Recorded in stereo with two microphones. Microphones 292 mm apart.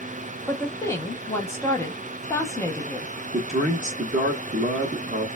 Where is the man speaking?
25° right (ahead or behind), 0.7 m.